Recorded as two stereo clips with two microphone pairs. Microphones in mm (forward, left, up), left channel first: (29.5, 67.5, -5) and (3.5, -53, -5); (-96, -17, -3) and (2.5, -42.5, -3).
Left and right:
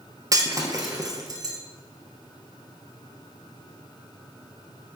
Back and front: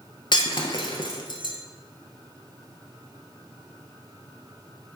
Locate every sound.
0.3 s breaking glass: 160° right, 1.1 m